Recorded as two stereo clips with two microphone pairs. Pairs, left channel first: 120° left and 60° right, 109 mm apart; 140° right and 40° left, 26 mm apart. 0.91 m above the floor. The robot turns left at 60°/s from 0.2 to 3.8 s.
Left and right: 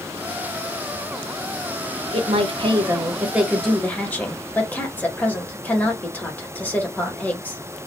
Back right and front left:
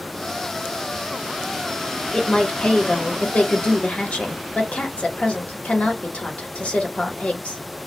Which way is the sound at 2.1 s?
70° right.